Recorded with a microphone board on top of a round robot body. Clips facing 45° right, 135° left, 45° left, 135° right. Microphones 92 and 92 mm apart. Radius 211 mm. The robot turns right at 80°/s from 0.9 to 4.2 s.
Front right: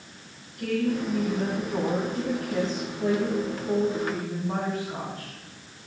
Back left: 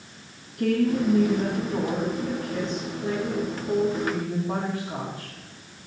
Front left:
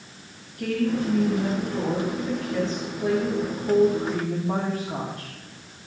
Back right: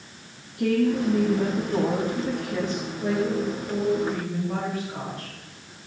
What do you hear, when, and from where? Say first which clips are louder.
0.6 s a woman speaking: back left 4 dB, back right 3 dB; 165° left, 4.5 m; by 5.3 s 65° left, 4.5 m